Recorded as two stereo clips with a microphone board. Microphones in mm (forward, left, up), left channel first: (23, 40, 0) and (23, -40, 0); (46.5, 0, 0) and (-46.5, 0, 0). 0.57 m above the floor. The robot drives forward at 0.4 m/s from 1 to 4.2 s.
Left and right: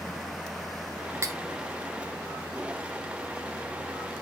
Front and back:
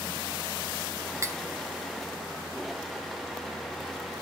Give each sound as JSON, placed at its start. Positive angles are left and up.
{"t": 1.2, "sound": "cutlery clinking", "azimuth_deg": -130, "distance_m": 0.6}